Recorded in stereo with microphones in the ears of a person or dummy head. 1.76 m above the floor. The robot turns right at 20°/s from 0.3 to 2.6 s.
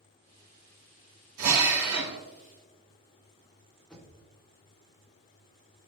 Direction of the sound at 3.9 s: 5° left (ahead or behind).